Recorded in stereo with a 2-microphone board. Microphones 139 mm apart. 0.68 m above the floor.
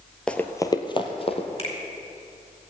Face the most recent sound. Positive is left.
turn(degrees=45)  # may be behind; listen again after turning